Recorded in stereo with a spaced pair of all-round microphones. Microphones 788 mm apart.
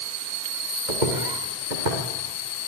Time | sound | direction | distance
0.9 | footsteps | 70° right (ahead or behind) | 5 m